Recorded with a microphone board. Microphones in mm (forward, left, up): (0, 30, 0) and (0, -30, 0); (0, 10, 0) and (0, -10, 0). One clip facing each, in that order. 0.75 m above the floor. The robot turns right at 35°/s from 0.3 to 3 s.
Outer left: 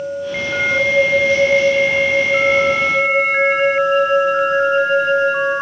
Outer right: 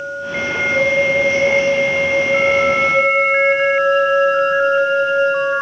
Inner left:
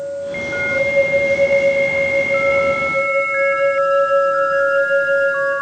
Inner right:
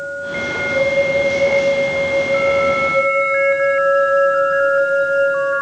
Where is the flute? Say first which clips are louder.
Outer left 1 dB, inner left 1 dB; 85° left, 6 m; by 5.5 s 165° left, 6 m.